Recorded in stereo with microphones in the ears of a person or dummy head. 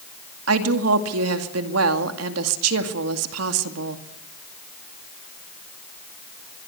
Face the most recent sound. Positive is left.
turn(degrees=-80)